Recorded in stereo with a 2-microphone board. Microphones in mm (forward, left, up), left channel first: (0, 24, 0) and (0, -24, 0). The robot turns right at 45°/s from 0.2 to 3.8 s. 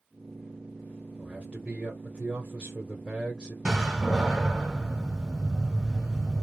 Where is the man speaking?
20° right (ahead or behind), 0.9 m; by 3.5 s 15° right (ahead or behind), 0.9 m.